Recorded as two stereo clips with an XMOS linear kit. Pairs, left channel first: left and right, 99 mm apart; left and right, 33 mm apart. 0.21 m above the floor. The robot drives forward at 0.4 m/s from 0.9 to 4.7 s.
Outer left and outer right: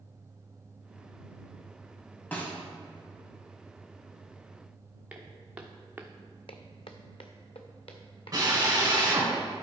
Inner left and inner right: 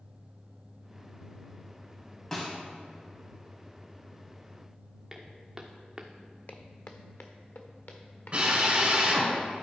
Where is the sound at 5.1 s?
10° right (ahead or behind), 1.6 m; by 6.1 s 20° right (ahead or behind), 0.7 m.